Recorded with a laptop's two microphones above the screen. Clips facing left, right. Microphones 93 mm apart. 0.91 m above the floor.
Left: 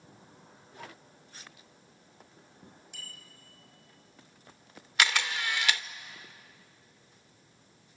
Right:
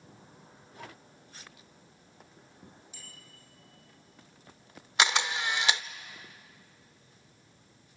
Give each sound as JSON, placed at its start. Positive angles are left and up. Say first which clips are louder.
{"t": 2.9, "sound": "a bicycle bell", "louder": "left 2 dB", "side_deg": 70, "distance_m": 4.5}
{"t": 5.0, "sound": "a camera shutter", "louder": "right 2 dB", "side_deg": -20, "distance_m": 0.6}